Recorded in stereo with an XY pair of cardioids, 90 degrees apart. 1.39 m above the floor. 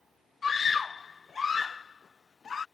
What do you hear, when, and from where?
0.4 s a scream: 45° left